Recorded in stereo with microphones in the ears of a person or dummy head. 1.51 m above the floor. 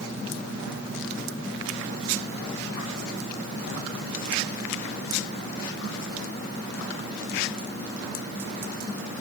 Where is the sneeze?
No sneeze in this recording.